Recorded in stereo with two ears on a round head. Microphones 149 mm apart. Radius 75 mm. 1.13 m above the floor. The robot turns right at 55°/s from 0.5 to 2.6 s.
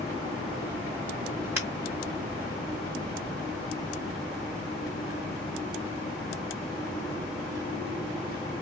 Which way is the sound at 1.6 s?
15° right (ahead or behind).